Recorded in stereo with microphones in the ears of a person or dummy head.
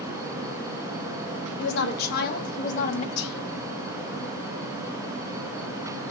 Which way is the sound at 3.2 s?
60° left (ahead or behind).